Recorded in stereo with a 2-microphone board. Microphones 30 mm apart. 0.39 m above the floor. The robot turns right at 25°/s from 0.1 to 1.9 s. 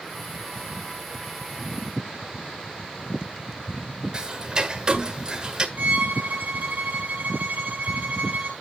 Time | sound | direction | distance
4.1 | ticking | 25° right (ahead or behind) | 1.5 m
5.8 | a violin | 65° right (ahead or behind) | 5 m